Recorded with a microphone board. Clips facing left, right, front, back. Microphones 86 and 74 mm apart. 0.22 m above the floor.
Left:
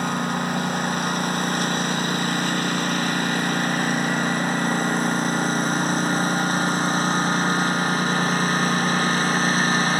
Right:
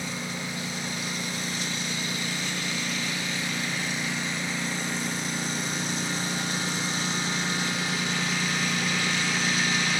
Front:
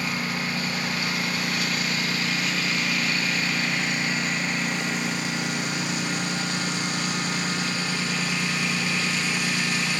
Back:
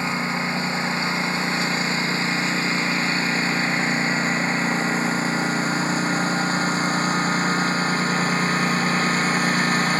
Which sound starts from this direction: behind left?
A lawn mower, at 0.0 s.